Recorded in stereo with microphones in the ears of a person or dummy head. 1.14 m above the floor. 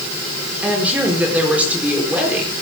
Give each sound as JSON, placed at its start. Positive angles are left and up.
{"t": 0.6, "sound": "a woman speaking", "side_deg": -5, "distance_m": 4.0}